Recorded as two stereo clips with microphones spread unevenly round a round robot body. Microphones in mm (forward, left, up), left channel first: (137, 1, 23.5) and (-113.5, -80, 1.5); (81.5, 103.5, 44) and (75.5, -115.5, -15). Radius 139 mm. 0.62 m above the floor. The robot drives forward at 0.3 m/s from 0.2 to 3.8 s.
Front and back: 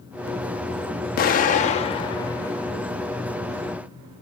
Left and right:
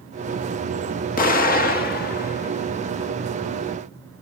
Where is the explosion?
45° left, 1.0 m; by 3.1 s 125° left, 0.9 m.